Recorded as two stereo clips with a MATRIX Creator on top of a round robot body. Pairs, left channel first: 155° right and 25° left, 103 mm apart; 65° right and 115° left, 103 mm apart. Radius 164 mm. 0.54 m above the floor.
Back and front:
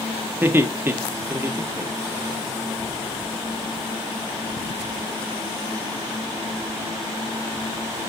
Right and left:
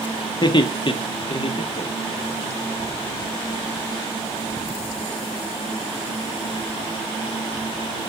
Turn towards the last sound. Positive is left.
turn(degrees=-50)